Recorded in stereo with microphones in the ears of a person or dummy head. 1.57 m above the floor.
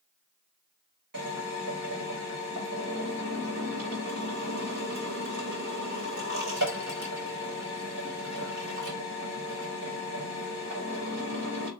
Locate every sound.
1.1 s a drill: 55° right (ahead or behind), 1.6 m